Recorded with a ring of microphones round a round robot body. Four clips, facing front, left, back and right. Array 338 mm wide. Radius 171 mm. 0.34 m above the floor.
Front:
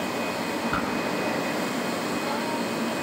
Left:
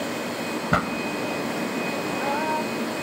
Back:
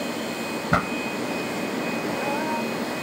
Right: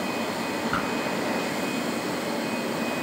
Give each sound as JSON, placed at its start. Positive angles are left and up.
{"t": 0.7, "sound": "a pop", "azimuth_deg": 140, "distance_m": 1.7}